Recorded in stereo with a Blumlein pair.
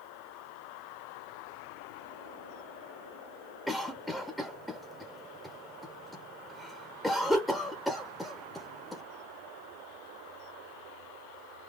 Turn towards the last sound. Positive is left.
turn(degrees=0)